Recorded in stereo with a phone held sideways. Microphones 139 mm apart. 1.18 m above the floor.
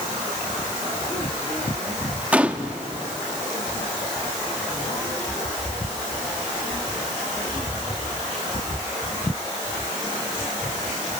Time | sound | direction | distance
2.3 | a gunshot | 10° right (ahead or behind) | 1.0 m